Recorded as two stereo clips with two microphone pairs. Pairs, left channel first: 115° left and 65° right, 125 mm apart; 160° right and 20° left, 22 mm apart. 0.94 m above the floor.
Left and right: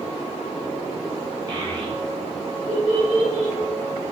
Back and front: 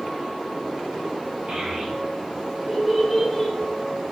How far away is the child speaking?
About 1.8 m.